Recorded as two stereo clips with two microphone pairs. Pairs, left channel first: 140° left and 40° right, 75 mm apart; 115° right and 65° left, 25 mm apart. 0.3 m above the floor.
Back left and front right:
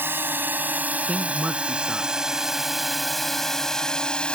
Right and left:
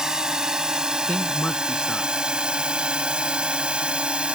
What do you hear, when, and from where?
0.0 s a drone: 15° left; by 4.3 s 70° left
1.1 s a man speaking: 115° right